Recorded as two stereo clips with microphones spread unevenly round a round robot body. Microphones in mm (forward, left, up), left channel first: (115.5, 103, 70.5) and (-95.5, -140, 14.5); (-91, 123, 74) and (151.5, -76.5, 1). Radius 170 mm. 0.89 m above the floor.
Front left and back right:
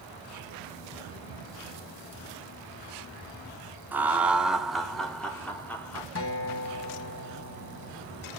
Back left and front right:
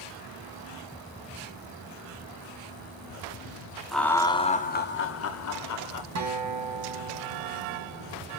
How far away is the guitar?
About 1.6 m.